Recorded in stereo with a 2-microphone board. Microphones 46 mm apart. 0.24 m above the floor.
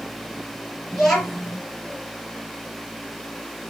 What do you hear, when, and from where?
0.9 s a child speaking: 10° left (ahead or behind), 3 m